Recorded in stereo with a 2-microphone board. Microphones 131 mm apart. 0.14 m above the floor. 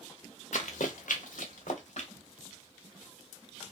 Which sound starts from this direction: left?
Running footsteps, at 0.5 s.